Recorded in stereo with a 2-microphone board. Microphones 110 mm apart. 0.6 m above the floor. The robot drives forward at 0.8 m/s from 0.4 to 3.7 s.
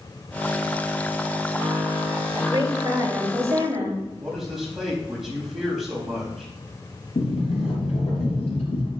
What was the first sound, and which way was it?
A woman speaking, 40° right (ahead or behind).